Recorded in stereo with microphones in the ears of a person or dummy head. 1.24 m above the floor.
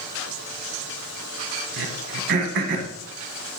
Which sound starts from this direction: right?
Throat clearing, at 1.8 s.